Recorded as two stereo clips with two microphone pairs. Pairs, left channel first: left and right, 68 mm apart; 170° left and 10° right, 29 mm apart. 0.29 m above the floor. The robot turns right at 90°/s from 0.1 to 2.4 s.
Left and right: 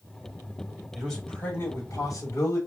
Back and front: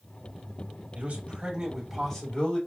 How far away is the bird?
I don't hear a bird.